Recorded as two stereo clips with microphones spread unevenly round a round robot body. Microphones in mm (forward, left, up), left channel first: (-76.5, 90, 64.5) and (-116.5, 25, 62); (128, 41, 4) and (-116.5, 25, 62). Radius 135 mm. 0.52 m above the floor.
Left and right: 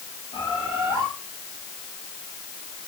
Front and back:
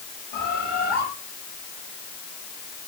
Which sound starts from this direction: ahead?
A bird, at 0.3 s.